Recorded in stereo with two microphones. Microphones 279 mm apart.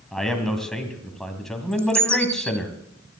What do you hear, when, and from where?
0.1 s a man speaking: centre (ahead or behind), 2.5 m
1.7 s a bird: 10° right (ahead or behind), 0.7 m